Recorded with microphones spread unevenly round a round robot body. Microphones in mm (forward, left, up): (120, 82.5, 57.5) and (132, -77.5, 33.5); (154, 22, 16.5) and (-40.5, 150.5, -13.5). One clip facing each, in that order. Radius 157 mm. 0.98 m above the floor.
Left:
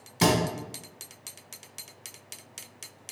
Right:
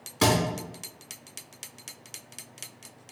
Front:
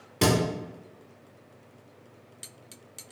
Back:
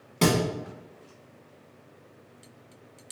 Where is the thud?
35° left, 1.4 m.